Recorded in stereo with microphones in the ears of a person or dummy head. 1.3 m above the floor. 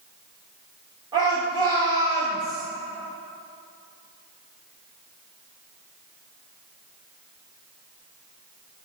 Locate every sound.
1.1 s a shout: 30° right (ahead or behind), 3.5 m